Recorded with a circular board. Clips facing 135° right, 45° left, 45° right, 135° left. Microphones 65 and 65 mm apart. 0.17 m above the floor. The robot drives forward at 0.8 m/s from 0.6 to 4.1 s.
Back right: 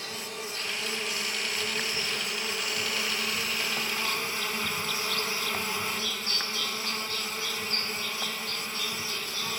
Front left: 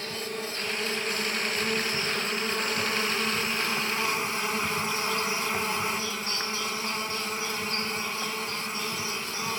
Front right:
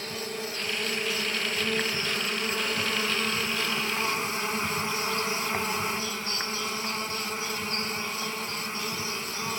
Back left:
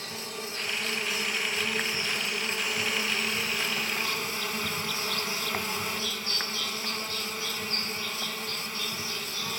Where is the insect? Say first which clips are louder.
Front left 4 dB, front right 4 dB; straight ahead, 4.5 m; by 9.6 s 5° right, 2 m.